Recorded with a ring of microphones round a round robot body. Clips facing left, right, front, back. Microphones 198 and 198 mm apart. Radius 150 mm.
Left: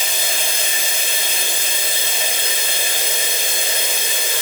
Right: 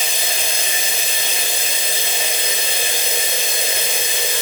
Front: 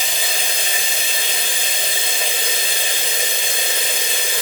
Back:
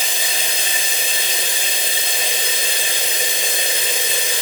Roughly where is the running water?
Behind right.